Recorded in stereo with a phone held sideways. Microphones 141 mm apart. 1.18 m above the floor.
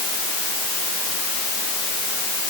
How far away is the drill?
No drill in this recording.